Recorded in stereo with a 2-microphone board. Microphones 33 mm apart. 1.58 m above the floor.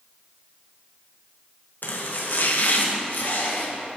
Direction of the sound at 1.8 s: 70° left (ahead or behind).